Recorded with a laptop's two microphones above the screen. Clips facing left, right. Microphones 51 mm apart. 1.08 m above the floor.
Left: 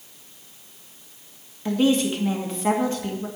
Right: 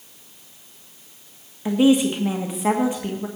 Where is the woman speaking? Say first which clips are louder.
Right 4 dB; 15° right (ahead or behind), 1.4 m.